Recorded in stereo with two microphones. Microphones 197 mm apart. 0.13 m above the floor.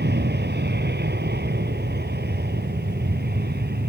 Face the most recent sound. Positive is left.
turn(degrees=-55)  # may be behind; listen again after turning